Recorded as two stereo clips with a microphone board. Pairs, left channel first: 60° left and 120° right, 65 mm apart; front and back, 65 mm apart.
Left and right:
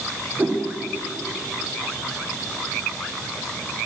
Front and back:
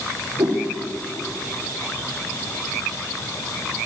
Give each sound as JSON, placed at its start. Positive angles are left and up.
{"t": 0.4, "sound": "a whoosh", "azimuth_deg": 180, "distance_m": 3.0}